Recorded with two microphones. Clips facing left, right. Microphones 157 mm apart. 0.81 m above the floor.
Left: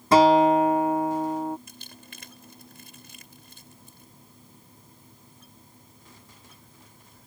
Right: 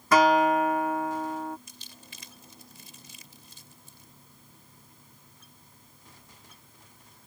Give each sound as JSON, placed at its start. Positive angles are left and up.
{"t": 0.1, "sound": "a guitar", "side_deg": 30}
{"t": 1.7, "sound": "crumpling", "side_deg": 60}